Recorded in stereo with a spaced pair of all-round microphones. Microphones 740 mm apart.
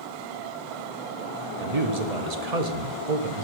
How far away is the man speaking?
About 1.2 m.